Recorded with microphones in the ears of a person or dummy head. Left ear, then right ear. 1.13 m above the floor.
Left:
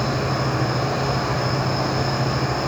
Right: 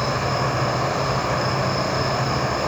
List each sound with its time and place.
0.0 s an insect: 15° right (ahead or behind), 4.5 m